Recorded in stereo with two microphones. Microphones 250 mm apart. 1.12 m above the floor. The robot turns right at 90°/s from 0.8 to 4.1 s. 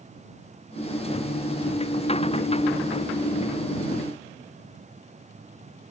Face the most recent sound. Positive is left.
No sound to turn to.